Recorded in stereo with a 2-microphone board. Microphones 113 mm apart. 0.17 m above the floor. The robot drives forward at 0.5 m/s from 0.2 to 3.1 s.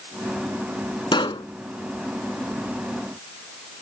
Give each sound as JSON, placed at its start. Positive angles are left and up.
{"t": 1.1, "sound": "a pop", "side_deg": 50}